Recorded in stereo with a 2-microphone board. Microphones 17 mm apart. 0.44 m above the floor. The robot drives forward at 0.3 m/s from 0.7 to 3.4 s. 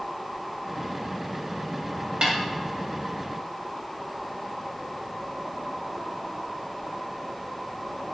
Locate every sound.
2.2 s a snare drum: 55° right (ahead or behind), 2.5 m